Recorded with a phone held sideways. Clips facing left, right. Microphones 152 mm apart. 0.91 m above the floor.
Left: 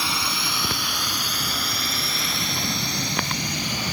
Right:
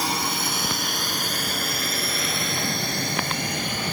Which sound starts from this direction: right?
A drone, at 0.0 s.